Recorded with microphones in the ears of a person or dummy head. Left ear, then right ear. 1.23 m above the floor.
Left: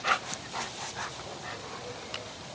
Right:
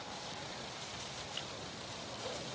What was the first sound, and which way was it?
Only background noise.